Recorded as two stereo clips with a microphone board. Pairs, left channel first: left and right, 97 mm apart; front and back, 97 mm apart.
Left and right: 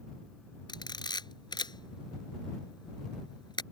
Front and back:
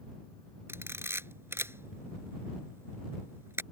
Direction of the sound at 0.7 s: 120° left.